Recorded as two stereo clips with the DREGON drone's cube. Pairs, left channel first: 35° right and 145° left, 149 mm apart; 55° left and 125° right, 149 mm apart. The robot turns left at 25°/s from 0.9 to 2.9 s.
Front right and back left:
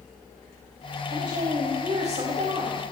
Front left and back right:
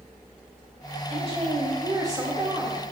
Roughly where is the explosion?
No explosion in this recording.